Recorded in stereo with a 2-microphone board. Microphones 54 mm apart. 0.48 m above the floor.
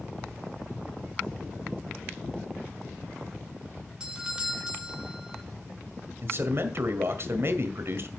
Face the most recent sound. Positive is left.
turn(degrees=-50)  # may be behind; listen again after turning